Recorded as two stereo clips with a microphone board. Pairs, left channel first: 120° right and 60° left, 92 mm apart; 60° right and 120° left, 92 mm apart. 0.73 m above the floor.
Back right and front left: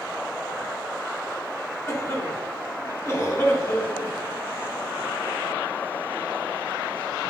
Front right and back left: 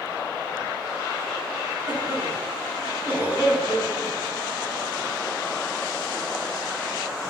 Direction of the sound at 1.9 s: 175° right.